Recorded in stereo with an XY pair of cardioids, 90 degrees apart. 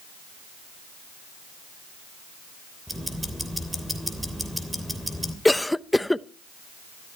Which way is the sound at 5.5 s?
10° left.